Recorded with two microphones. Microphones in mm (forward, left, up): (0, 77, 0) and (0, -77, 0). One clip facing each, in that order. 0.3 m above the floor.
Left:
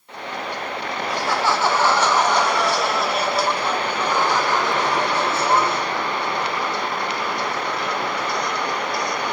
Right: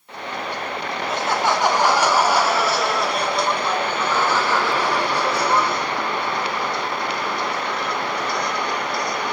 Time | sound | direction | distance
1.1 | laughter | 25° right (ahead or behind) | 2.5 m